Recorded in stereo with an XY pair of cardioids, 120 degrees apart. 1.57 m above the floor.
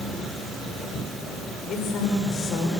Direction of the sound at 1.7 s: 65° left.